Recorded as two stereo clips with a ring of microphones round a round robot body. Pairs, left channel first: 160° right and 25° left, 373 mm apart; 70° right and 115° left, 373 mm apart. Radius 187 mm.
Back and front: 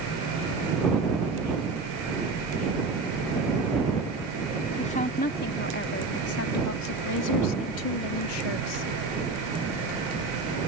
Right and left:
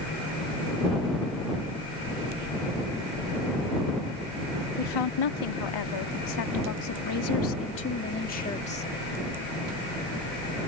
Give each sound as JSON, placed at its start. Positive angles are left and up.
{"t": 4.8, "sound": "a woman speaking", "azimuth_deg": -85}